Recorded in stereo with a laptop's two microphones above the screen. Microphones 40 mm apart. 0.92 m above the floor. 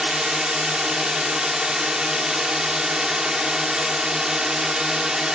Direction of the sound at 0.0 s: 20° right (ahead or behind).